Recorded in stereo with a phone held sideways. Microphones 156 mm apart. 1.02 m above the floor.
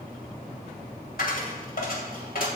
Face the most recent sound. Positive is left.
turn(degrees=70)  # may be behind; listen again after turning